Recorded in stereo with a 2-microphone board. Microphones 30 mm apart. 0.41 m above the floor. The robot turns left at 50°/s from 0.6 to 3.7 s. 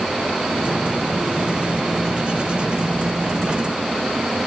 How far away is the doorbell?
I don't hear a doorbell.